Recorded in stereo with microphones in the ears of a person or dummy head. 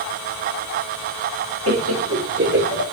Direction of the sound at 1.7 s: 75° right (ahead or behind).